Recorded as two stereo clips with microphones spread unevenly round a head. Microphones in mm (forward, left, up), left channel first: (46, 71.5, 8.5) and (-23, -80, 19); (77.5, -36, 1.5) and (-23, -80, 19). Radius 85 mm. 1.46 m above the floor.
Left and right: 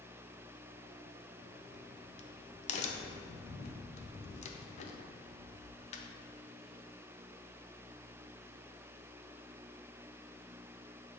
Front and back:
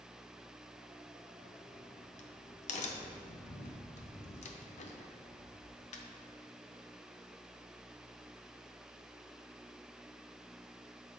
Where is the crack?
15° left, 0.6 m.